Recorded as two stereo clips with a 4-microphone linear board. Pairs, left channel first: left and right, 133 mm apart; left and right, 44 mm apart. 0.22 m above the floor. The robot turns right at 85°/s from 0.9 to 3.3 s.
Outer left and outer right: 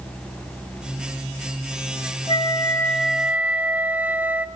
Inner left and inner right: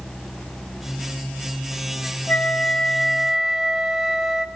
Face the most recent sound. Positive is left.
turn(degrees=-160)